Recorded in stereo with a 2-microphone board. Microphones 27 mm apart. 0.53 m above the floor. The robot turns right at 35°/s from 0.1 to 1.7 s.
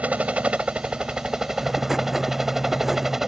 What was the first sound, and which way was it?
A helicopter, 70° right.